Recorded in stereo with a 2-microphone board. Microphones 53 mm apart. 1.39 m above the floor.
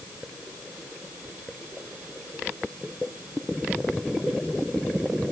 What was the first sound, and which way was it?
Only background noise.